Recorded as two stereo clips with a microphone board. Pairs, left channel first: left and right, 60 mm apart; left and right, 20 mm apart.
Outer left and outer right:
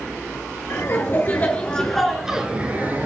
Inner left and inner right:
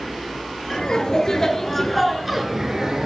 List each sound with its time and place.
0.7 s laughter: 45° left (ahead or behind), 2.5 m; by 3.1 s 35° right (ahead or behind), 2.0 m